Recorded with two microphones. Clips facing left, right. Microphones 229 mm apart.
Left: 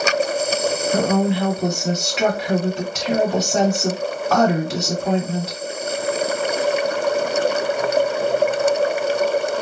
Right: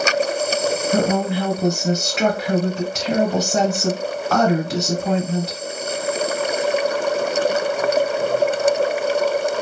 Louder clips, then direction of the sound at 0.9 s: Left 2 dB; centre (ahead or behind).